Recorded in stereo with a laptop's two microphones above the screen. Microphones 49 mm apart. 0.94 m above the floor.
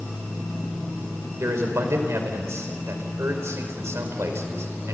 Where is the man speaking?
70° right (ahead or behind), 4.5 m.